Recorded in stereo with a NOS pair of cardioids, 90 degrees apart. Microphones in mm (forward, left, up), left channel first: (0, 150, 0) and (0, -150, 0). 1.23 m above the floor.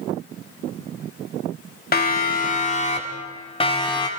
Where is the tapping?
I don't hear tapping.